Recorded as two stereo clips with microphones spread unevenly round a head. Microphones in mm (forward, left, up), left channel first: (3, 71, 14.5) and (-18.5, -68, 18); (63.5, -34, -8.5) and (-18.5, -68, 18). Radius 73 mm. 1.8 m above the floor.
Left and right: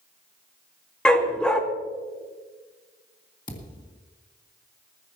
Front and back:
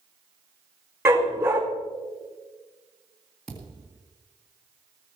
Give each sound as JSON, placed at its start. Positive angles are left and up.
{"t": 1.1, "sound": "a dog barking", "azimuth_deg": 165, "distance_m": 1.8}
{"t": 3.5, "sound": "a thud", "azimuth_deg": 130, "distance_m": 2.0}